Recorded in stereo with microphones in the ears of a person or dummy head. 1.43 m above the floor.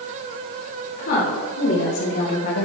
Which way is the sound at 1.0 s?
50° left (ahead or behind).